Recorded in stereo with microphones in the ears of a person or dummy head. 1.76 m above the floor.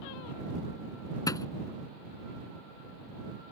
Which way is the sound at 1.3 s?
20° left (ahead or behind).